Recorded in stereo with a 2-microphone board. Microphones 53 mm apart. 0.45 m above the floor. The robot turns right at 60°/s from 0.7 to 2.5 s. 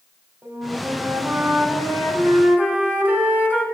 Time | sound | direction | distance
0.4 | a flute | 140° right | 1.4 m